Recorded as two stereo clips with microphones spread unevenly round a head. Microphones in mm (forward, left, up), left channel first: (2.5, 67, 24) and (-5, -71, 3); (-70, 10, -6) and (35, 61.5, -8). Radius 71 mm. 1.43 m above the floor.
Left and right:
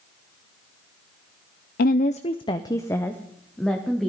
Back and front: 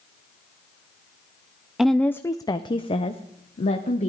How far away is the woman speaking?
About 0.5 m.